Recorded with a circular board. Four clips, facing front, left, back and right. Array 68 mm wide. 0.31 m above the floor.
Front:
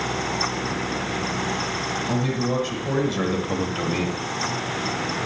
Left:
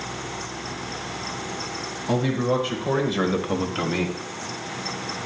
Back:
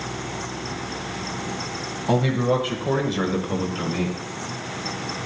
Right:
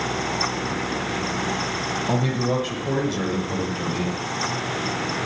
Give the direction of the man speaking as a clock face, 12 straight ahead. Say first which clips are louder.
Left 2 dB, back 6 dB; 6 o'clock.